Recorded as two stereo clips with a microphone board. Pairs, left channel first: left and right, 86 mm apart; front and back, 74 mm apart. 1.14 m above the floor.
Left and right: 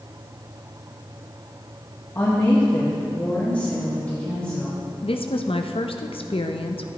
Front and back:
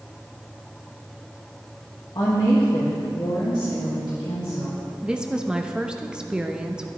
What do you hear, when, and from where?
2.1 s a woman speaking: 30° left, 1.5 m; by 4.8 s 15° left, 2.5 m
5.0 s a woman speaking: 100° left, 0.7 m